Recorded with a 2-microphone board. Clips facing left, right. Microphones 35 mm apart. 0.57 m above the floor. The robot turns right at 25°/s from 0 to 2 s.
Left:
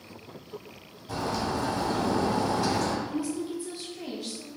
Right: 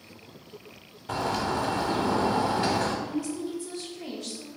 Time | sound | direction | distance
1.1 | a bird | 55° right (ahead or behind) | 0.6 m
3.1 | a woman speaking | 15° left (ahead or behind) | 1.2 m